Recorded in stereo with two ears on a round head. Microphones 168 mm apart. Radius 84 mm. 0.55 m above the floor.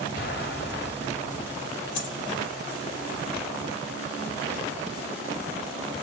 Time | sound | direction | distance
0.2 | an explosion | 65° left (ahead or behind) | 4 m
1.9 | a dropped coin | 70° left (ahead or behind) | 3.5 m